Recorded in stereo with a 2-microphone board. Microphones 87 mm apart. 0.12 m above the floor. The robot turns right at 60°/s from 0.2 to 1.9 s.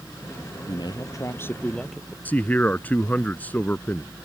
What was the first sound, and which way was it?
A man speaking, 105° left.